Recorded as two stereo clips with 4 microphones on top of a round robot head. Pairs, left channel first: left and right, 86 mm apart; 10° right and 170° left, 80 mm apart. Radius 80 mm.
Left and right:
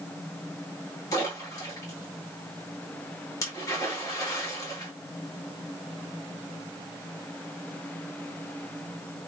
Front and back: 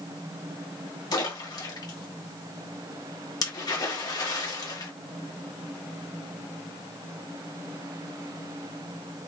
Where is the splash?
30° left, 1.7 m.